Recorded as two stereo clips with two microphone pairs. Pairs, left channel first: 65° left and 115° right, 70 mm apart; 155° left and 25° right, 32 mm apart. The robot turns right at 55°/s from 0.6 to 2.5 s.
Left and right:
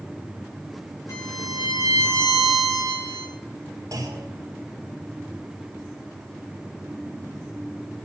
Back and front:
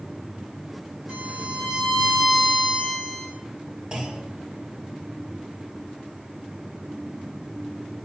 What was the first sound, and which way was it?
A violin, 15° left.